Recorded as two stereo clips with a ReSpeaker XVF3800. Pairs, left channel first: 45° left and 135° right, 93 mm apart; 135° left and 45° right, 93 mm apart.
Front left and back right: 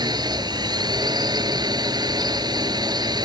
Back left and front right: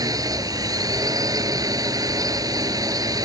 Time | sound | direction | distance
0.0 | a drone | 90° right | ?